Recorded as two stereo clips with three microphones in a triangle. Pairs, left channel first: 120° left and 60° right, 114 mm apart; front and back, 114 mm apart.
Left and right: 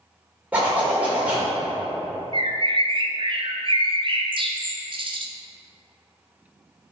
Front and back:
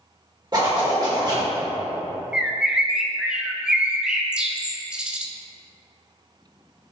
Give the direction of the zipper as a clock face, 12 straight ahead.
4 o'clock.